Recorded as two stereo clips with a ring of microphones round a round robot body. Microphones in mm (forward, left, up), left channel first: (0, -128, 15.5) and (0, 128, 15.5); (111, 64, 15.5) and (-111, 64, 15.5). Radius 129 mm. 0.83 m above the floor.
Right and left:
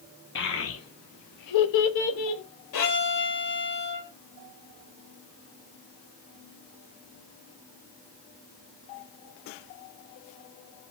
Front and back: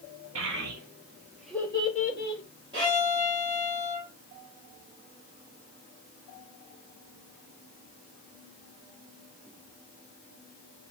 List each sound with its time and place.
0.3 s a child speaking: 140° right, 0.8 m; by 2.4 s 50° right, 0.7 m
2.7 s a violin: 105° right, 1.2 m